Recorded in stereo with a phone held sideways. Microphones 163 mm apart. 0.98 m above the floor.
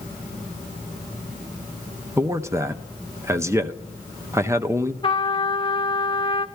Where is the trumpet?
30° left (ahead or behind), 0.6 m.